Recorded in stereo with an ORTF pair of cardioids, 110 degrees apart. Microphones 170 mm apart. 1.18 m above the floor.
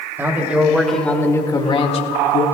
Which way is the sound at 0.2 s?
15° right.